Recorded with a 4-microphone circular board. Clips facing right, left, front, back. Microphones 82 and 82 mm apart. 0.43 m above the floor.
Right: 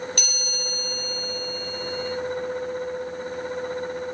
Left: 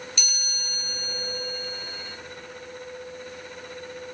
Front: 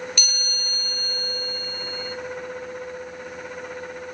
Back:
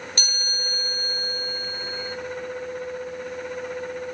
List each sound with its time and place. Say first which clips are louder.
0.2 s a chime: right 5 dB, back 1 dB; 125° right, 1.8 m